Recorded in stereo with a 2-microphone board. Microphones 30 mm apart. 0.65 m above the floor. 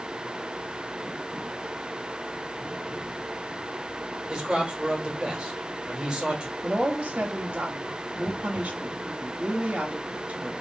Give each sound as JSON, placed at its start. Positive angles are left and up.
{"t": 4.3, "sound": "a man speaking", "side_deg": -25, "distance_m": 1.1}
{"t": 6.6, "sound": "a woman speaking", "side_deg": -40, "distance_m": 0.8}